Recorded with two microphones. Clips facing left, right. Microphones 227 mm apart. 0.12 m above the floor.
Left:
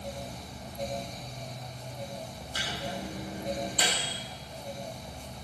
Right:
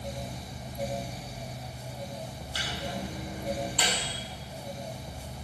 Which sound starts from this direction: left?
A microwave, at 2.5 s.